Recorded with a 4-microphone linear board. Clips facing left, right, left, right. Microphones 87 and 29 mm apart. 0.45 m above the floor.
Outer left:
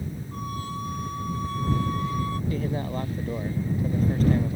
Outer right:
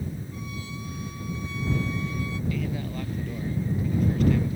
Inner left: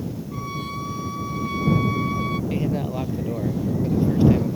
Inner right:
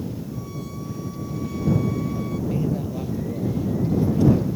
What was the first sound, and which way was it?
A violin, 50° left (ahead or behind).